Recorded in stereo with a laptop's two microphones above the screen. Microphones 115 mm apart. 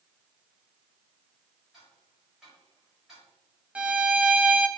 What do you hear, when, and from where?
1.7 s ticking: centre (ahead or behind), 4.5 m
3.8 s a violin: 10° right (ahead or behind), 0.6 m